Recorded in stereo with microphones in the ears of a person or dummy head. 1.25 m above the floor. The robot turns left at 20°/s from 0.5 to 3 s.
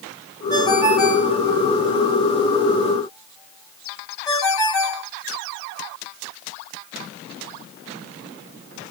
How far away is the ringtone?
About 1.4 m.